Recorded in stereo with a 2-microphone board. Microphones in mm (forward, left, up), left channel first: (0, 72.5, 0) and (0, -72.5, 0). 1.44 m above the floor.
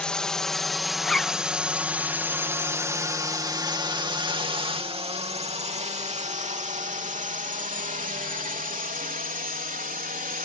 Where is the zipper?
5° left (ahead or behind).